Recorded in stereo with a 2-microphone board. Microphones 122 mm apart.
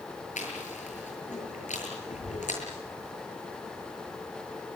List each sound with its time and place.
0.4 s chewing: 90° left, 7.5 m